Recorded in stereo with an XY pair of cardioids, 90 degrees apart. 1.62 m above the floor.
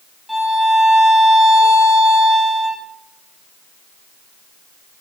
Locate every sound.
0.3 s a violin: 5° right, 2.5 m